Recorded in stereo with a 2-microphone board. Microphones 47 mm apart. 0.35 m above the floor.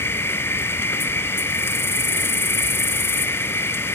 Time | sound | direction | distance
0.0 | an insect | 60° left (ahead or behind) | 0.7 m